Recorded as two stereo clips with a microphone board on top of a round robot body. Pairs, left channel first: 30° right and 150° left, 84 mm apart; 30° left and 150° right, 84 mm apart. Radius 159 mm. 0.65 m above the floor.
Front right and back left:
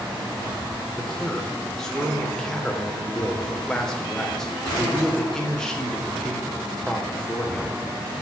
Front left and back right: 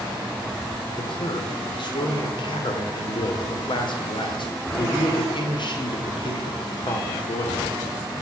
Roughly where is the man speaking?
Ahead left.